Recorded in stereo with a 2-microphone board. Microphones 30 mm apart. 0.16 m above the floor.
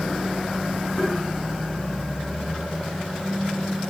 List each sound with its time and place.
1.0 s tapping: 20° left (ahead or behind), 8 m